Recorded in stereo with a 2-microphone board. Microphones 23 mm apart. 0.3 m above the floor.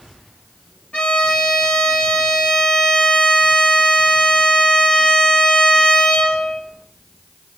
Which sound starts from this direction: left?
A violin, at 0.9 s.